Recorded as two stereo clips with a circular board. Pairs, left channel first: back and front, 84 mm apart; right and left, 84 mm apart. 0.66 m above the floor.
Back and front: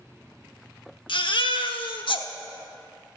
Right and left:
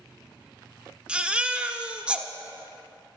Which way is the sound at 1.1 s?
165° left.